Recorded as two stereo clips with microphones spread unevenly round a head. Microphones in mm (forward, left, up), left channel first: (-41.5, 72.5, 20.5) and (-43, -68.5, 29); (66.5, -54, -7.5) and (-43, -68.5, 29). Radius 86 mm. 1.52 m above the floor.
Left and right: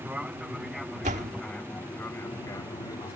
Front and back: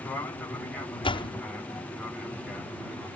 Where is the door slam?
40° right.